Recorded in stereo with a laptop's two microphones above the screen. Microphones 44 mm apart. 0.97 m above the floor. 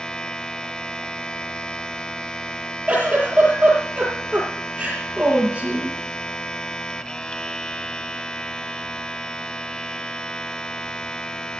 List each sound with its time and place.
0.0 s a machine running: 20° left (ahead or behind), 0.9 m
2.9 s a giggle: 30° right (ahead or behind), 7.5 m